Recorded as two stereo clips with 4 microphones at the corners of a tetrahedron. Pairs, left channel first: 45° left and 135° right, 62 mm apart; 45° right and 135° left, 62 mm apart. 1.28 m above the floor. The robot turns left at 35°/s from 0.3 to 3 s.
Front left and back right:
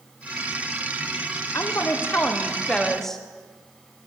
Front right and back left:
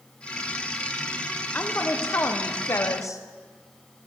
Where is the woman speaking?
15° left, 0.7 m; by 3.2 s 35° right, 0.7 m.